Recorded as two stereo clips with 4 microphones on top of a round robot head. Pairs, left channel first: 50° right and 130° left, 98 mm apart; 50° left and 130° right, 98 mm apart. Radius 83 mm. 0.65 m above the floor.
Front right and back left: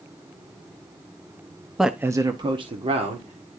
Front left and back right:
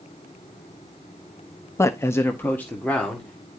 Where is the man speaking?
45° left, 0.9 m; by 3.5 s 130° left, 2 m.